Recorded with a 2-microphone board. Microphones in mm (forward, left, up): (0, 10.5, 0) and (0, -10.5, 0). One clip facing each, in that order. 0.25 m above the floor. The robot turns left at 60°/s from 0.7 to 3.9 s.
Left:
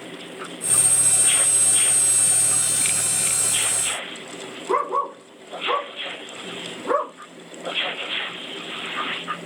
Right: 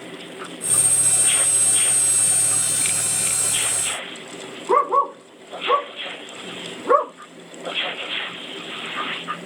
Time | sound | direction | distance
4.7 | a dog barking | 65° right (ahead or behind) | 6.5 m